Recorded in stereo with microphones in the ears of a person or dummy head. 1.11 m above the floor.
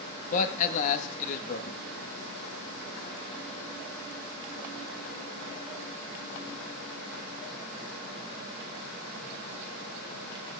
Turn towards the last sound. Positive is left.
turn(degrees=50)  # may be behind; listen again after turning